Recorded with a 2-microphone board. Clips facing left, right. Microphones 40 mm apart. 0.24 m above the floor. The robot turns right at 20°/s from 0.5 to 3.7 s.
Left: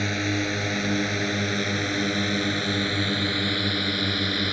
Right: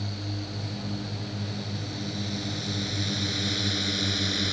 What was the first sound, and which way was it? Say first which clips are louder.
A drone: left 11 dB; 65° left (ahead or behind).